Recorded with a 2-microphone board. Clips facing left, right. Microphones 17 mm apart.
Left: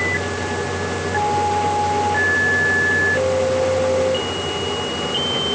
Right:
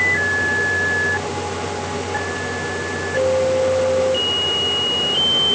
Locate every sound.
Only background noise.